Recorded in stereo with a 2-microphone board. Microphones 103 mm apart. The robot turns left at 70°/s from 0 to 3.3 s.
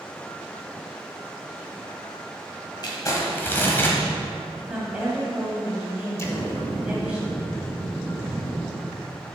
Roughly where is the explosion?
Left.